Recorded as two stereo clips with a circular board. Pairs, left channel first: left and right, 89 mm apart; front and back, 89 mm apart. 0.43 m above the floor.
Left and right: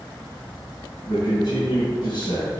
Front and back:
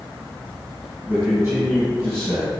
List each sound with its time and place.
1.1 s a man speaking: 120° left, 3.5 m